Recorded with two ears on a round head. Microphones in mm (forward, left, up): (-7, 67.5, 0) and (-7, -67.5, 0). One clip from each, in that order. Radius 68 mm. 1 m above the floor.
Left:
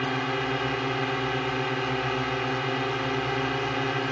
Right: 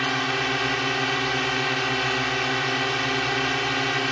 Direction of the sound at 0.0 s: 75° right (ahead or behind).